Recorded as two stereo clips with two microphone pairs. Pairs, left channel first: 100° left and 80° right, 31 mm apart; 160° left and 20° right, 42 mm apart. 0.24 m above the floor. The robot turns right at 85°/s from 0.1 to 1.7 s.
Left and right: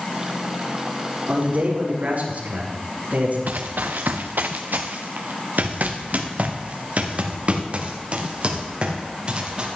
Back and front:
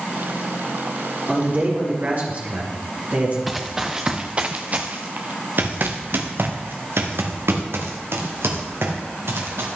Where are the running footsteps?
110° right, 1.4 m; by 9.7 s 30° right, 4 m.